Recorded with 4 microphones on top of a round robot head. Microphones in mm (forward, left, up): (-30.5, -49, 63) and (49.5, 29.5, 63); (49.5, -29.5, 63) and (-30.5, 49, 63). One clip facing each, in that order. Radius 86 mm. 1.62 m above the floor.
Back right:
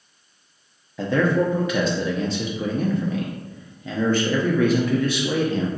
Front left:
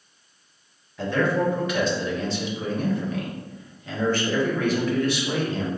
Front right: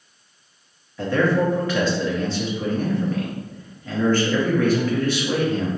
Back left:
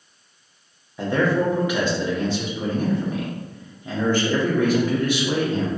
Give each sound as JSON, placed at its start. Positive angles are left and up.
{"t": 1.0, "sound": "a man speaking", "azimuth_deg": -145, "distance_m": 0.8}